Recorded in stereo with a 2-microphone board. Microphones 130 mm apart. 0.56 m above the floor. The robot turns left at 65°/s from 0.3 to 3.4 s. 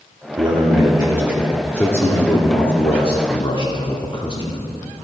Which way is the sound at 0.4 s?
105° right.